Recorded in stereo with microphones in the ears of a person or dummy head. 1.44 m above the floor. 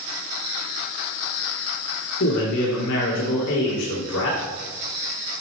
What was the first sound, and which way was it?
A man speaking, 75° left (ahead or behind).